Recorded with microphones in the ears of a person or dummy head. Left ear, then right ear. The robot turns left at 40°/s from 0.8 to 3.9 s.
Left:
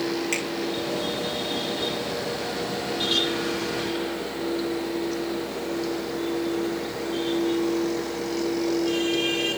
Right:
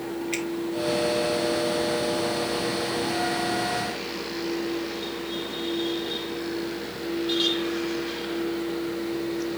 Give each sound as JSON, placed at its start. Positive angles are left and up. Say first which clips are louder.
{"t": 0.3, "sound": "a finger snap", "louder": "left 1 dB", "side_deg": 70, "distance_m": 7.5}